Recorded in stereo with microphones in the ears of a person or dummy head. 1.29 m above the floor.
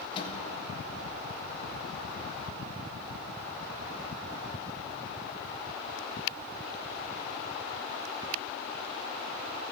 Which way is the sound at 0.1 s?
35° left (ahead or behind).